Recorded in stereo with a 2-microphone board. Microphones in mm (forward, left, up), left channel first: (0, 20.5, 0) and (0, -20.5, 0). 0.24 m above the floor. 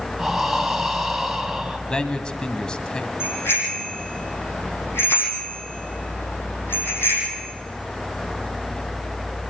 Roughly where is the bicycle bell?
Left.